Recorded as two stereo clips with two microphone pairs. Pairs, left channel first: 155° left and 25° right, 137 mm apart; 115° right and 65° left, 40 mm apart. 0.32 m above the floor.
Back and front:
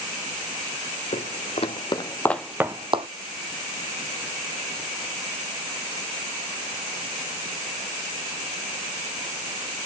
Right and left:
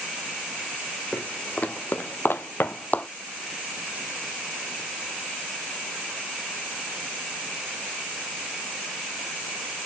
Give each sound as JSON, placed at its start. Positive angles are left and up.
{"t": 1.1, "sound": "footsteps", "azimuth_deg": -170, "distance_m": 1.3}